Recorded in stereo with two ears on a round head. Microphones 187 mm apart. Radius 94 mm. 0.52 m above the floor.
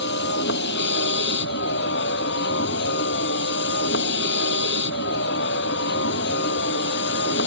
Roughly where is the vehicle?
Left.